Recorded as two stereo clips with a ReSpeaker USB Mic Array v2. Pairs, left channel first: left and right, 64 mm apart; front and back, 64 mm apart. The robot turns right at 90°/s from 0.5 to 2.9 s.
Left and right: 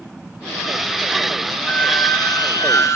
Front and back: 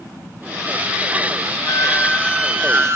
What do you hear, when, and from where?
1.7 s a squeak: 25° left, 3 m; by 3.0 s 135° left, 3 m